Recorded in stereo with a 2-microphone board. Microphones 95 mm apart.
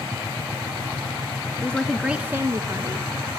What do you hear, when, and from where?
1.6 s a woman speaking: 15° left (ahead or behind), 1.1 m; by 3.1 s 45° right (ahead or behind), 1.7 m